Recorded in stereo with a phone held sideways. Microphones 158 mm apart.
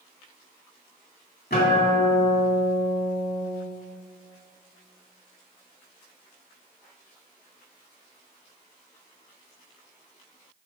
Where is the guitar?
80° left, 2.5 m.